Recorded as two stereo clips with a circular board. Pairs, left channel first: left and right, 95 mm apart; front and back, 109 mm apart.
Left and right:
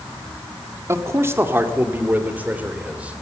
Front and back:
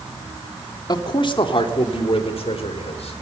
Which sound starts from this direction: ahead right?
A man speaking, at 0.9 s.